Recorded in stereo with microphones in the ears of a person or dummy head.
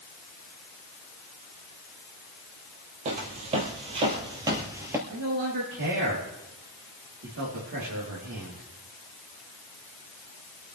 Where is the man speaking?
75° right (ahead or behind), 4 m.